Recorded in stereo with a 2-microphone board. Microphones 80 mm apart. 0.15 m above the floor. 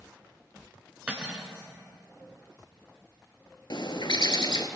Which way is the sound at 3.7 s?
60° left (ahead or behind).